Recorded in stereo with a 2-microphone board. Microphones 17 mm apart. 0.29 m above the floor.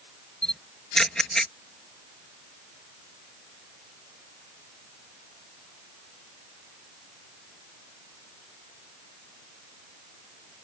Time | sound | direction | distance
0.4 | a camera shutter | 30° left (ahead or behind) | ?